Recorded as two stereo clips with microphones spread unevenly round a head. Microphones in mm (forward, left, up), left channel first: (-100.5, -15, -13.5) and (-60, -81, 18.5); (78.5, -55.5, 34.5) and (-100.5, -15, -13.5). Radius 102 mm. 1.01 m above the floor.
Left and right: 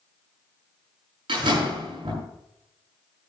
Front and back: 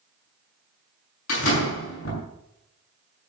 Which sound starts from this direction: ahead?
A door slam, at 1.3 s.